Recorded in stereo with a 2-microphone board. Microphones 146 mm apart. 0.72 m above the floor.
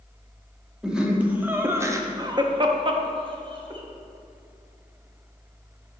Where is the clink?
I don't hear a clink.